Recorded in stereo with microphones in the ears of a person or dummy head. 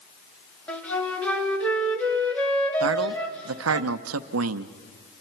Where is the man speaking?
85° right, 0.7 m.